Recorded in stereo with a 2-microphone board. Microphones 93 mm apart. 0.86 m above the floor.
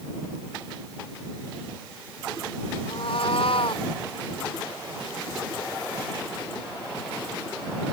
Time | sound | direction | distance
2.9 | a cat meowing | 75° left (ahead or behind) | ?